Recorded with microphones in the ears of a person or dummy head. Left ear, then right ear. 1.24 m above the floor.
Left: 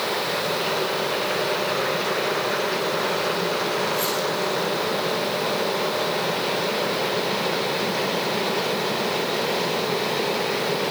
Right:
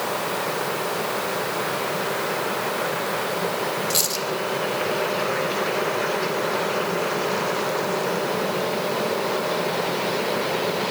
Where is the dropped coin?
70° right (ahead or behind), 3 m.